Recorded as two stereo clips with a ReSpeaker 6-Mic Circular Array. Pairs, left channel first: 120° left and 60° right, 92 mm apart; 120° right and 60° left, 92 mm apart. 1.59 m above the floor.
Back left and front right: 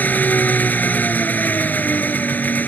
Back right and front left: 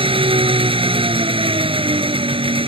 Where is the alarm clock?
No alarm clock in this recording.